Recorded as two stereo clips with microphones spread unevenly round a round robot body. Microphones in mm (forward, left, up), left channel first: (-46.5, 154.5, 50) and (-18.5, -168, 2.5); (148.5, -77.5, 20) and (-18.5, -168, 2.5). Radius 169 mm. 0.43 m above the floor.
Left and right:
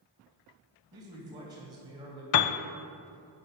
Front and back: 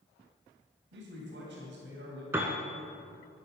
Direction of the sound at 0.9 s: 160° right.